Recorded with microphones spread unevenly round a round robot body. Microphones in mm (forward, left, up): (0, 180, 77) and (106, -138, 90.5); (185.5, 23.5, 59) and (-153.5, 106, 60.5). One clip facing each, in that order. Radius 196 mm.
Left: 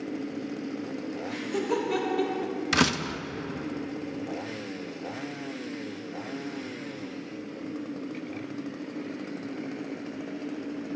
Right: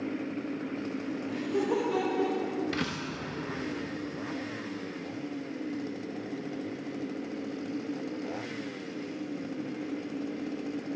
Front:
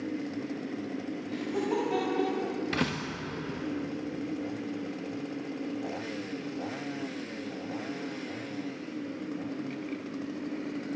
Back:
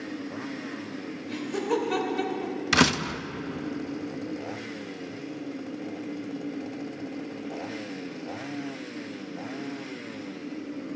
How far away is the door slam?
About 0.6 m.